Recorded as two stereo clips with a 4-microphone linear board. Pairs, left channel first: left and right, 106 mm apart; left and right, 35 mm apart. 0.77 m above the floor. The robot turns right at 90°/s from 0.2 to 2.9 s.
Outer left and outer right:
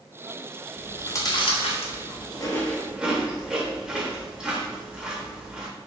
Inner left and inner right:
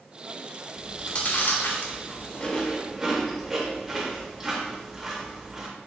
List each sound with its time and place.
0.8 s chewing: centre (ahead or behind), 0.6 m; by 5.7 s 10° right (ahead or behind), 0.6 m